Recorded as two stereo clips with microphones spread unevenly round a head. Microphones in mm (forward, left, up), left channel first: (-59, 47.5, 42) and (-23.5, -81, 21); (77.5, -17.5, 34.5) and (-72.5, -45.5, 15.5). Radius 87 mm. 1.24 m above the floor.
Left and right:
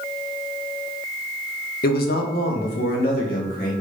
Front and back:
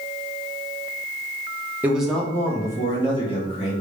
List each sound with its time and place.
1.8 s a man speaking: 110° left, 1.6 m; by 3.7 s 70° left, 3 m